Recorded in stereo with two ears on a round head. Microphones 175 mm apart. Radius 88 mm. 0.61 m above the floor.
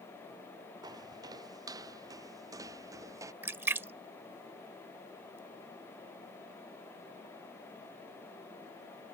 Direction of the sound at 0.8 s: 20° right (ahead or behind).